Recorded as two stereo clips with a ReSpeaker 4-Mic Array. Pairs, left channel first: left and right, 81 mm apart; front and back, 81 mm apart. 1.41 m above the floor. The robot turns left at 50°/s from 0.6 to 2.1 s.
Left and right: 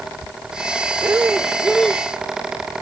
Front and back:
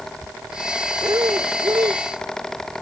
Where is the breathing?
140° right; by 2.1 s 165° left.